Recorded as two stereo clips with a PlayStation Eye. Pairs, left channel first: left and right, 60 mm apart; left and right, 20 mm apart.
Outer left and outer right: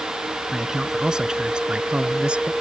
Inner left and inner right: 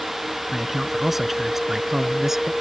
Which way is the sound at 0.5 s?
10° right (ahead or behind).